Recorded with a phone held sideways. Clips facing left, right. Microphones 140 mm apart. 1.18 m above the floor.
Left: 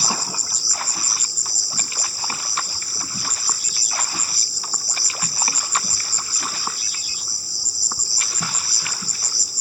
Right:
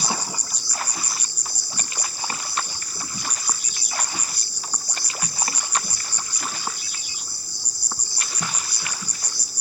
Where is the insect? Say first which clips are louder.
Left 1 dB; 10° left (ahead or behind), 0.9 m.